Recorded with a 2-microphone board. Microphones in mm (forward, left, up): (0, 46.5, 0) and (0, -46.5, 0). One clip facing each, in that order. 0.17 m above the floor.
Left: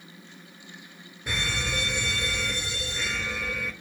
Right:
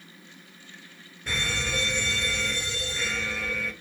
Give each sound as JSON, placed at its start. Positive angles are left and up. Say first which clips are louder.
{"t": 1.3, "sound": "an alarm", "louder": "even", "side_deg": 10, "distance_m": 5.0}